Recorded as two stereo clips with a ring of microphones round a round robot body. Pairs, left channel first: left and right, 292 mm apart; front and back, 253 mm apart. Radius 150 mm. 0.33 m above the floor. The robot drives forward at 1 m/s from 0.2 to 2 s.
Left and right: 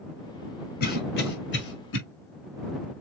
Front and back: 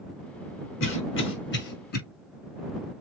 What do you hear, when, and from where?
0.8 s a cough: 35° left, 4 m; by 2.0 s 45° left, 3 m